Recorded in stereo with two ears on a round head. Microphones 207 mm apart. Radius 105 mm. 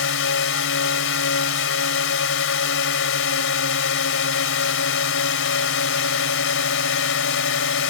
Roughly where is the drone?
Left.